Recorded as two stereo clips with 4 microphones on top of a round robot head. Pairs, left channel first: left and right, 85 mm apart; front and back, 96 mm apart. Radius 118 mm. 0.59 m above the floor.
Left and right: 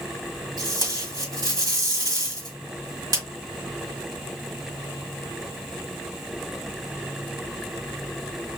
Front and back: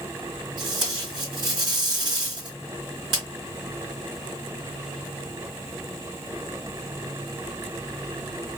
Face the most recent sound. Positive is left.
turn(degrees=-130)